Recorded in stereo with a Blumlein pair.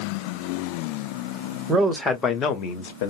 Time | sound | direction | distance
1.7 | a man speaking | 15° right | 0.7 m